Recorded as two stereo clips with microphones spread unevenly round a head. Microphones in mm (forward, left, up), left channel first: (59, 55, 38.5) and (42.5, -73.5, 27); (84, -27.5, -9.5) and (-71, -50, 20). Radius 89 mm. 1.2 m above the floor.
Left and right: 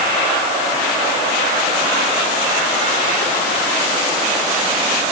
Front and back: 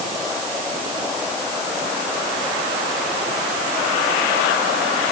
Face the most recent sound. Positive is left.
No sound to turn to.